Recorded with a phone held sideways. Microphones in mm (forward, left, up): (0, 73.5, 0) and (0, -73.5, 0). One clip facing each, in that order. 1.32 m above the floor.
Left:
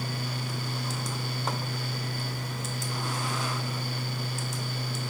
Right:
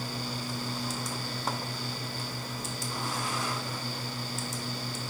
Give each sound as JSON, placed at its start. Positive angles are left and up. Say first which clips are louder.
{"t": 0.0, "sound": "a fan", "louder": "left 1 dB", "side_deg": 75}